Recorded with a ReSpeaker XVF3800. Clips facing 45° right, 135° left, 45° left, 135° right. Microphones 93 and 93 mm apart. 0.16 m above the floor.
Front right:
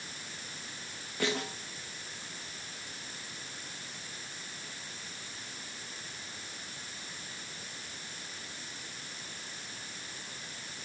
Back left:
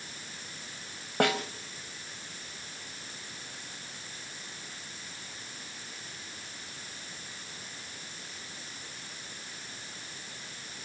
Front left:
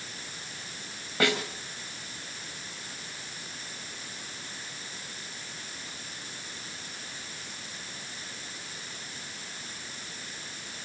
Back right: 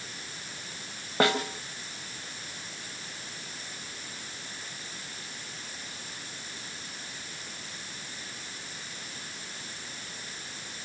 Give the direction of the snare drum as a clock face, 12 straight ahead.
6 o'clock.